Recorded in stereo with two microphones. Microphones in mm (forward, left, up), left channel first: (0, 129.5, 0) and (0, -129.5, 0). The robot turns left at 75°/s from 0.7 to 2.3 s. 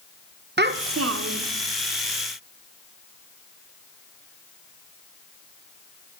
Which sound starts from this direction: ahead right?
A child speaking, at 0.6 s.